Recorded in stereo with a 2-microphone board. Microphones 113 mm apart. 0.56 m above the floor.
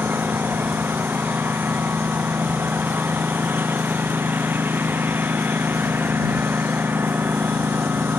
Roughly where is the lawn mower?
Centre.